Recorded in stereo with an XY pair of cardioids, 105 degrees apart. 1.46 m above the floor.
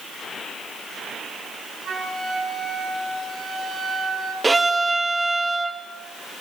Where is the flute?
50° right, 9 m.